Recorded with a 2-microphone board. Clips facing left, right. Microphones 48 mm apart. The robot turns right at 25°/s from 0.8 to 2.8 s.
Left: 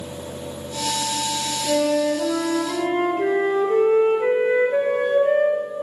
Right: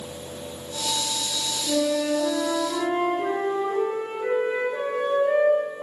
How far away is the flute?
About 2 m.